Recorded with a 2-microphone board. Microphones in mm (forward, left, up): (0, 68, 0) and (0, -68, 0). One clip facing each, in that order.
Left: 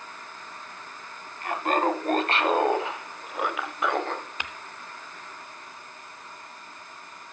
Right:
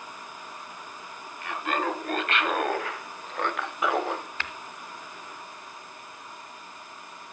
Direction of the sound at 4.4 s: 15° left (ahead or behind).